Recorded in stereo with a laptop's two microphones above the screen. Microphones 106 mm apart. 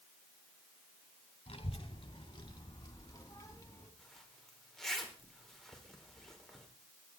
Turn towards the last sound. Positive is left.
turn(degrees=5)  # may be behind; listen again after turning